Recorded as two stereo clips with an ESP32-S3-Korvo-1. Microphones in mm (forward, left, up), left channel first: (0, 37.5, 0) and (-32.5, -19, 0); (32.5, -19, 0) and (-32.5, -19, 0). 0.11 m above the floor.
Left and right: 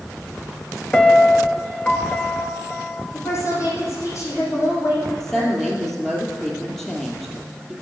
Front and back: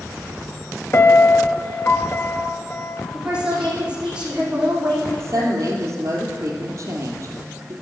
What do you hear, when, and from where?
0.9 s a piano: straight ahead, 0.6 m
3.1 s a woman speaking: 105° left, 4.5 m
5.2 s a woman speaking: 145° left, 2.5 m